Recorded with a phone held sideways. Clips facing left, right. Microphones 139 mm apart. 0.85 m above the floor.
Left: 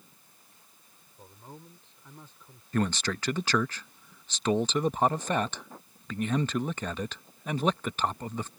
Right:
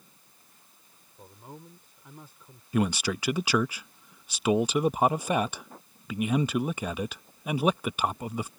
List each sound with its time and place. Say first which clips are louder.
1.2 s a man speaking: right 2 dB; 10° right (ahead or behind)
2.7 s a man speaking: right 2 dB; 10° right (ahead or behind)